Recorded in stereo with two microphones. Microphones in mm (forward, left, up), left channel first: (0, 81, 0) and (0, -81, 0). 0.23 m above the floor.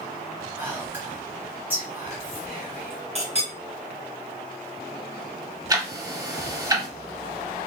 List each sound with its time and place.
0.6 s whispering: 10° right (ahead or behind), 1.7 m
3.1 s a clink: 40° right (ahead or behind), 2 m
5.7 s ticking: 25° right (ahead or behind), 0.8 m